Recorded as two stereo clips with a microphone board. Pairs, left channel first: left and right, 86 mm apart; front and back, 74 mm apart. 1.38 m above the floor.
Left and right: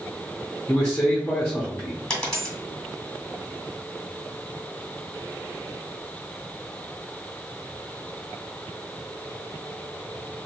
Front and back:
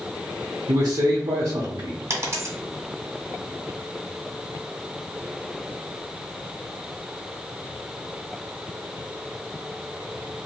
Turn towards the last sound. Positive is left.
turn(degrees=165)